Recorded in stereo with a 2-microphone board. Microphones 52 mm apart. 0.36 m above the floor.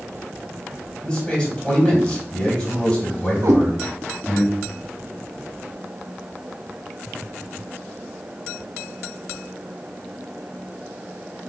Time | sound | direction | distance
1.0 | a man speaking | 15° left (ahead or behind) | 2 m
3.4 | a cat meowing | 70° right (ahead or behind) | 0.7 m